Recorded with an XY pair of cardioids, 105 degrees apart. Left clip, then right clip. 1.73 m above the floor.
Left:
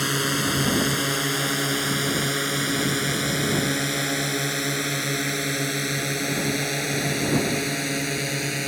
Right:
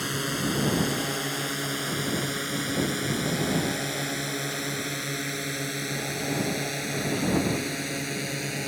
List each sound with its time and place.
0.0 s a drone: 40° left; by 8.7 s 35° left